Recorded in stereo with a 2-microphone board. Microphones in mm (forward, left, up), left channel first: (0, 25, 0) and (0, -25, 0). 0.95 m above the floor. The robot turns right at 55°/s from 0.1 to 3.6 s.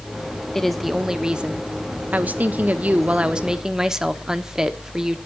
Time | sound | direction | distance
0.6 | a woman speaking | 170° left | 0.9 m